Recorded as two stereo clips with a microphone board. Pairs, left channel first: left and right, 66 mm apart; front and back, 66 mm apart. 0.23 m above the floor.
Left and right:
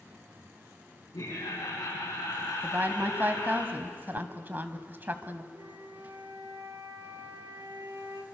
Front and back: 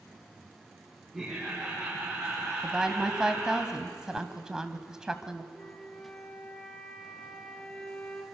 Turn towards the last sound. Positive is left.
turn(degrees=-80)